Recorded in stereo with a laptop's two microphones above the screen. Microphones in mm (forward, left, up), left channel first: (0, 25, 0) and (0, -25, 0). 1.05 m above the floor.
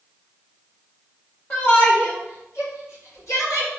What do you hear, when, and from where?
1.5 s a shout: 35° left (ahead or behind), 2.5 m; by 3.7 s 80° left, 3.5 m